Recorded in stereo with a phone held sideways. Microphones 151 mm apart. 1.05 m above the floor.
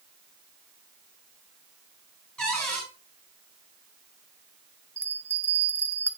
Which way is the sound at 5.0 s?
15° right (ahead or behind).